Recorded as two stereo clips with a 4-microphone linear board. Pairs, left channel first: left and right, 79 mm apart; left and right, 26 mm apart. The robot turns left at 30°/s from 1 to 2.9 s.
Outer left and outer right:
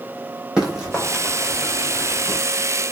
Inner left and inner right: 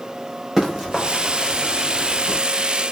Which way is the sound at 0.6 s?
10° right (ahead or behind).